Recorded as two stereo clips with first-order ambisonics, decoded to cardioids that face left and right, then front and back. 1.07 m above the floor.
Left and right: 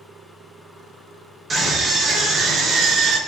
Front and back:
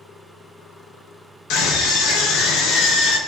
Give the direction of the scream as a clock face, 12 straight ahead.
1 o'clock.